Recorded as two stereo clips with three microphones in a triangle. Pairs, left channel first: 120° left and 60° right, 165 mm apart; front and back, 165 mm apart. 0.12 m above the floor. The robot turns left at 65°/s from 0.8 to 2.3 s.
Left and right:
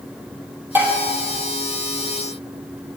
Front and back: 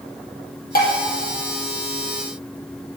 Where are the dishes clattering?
15° left, 2.5 m; by 0.9 s 10° left, 2.5 m.